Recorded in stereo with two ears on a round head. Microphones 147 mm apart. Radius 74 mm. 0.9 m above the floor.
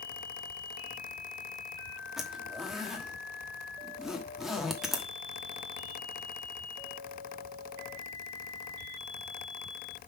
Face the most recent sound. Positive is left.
turn(degrees=0)  # may be behind; listen again after turning